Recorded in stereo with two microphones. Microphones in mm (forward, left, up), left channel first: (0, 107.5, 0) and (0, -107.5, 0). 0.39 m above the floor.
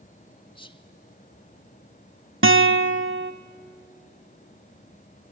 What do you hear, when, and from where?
0.6 s whispering: 25° left (ahead or behind), 1.2 m
2.4 s a guitar: 75° right (ahead or behind), 0.9 m